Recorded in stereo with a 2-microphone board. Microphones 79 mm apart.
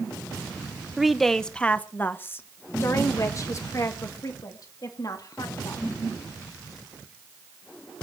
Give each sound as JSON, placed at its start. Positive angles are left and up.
{"t": 1.0, "sound": "a woman speaking", "side_deg": -5, "distance_m": 1.1}